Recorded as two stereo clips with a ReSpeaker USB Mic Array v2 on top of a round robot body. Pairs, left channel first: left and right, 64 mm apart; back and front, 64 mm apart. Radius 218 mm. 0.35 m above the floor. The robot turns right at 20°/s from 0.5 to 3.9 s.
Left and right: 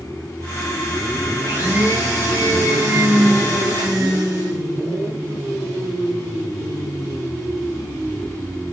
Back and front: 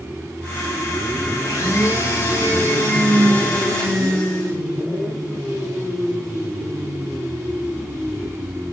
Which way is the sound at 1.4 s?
145° right.